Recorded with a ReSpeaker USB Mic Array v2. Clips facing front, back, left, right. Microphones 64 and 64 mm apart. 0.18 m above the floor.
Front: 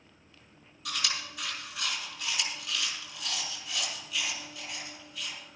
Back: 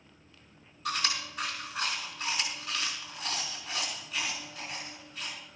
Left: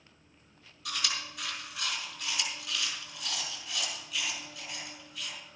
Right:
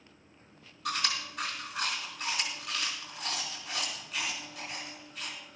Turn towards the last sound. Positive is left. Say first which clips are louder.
# back 3 dB, right 3 dB
turn(degrees=-130)